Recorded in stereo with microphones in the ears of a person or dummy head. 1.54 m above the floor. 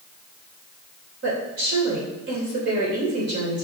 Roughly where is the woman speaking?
Right.